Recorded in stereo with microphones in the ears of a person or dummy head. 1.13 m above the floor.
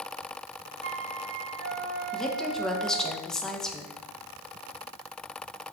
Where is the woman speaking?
5° left (ahead or behind), 1.3 m.